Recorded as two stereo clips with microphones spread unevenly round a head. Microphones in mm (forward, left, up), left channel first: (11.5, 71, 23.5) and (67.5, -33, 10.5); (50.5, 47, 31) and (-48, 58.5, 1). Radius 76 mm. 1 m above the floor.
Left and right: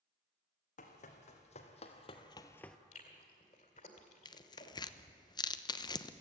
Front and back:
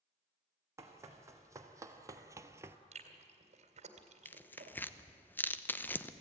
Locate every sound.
0.8 s running footsteps: 110° left, 3 m; by 2.8 s 105° left, 0.9 m
2.9 s chewing: 165° left, 2 m
4.2 s tearing paper: 80° left, 0.9 m